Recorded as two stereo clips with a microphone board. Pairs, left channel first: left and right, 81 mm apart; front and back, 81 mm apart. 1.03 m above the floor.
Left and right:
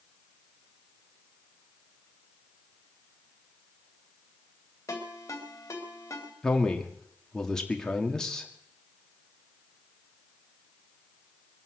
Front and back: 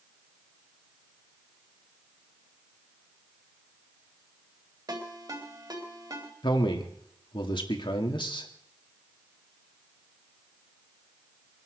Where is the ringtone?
145° left, 4 m.